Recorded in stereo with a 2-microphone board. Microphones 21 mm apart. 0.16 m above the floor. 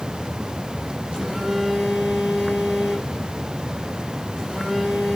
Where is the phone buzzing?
60° right (ahead or behind), 8.5 m.